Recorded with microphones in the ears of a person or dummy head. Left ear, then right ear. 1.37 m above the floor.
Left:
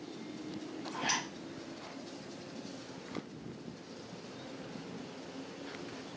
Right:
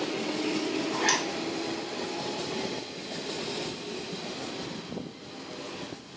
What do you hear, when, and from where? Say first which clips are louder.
0.9 s a zipper: right 7 dB; 65° right (ahead or behind), 1.4 m